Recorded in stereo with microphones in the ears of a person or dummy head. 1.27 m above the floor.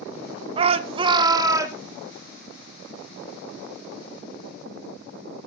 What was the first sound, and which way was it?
A shout, 25° right (ahead or behind).